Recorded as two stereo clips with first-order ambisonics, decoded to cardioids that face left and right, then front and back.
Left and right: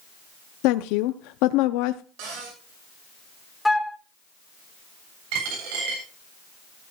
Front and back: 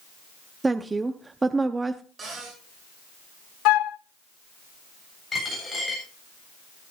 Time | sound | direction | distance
0.6 | a woman speaking | 100° left | 0.5 m
2.2 | a cupboard door | 110° right | 7 m
3.6 | a flute | 5° left | 0.6 m
5.3 | a dropped coin | 80° right | 7.5 m